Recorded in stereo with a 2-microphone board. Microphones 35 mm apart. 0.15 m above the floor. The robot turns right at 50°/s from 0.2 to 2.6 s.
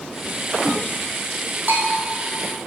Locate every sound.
1.7 s a bell: 65° right (ahead or behind), 2.5 m; by 2.0 s 50° right (ahead or behind), 2.5 m